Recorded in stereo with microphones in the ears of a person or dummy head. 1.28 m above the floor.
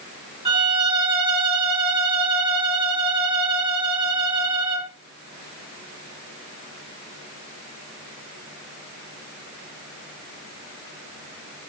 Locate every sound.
0.5 s a violin: 30° right (ahead or behind), 1.7 m